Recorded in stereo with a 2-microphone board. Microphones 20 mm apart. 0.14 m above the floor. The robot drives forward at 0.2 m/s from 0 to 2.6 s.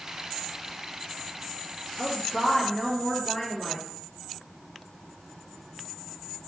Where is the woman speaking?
30° left (ahead or behind), 2.5 m.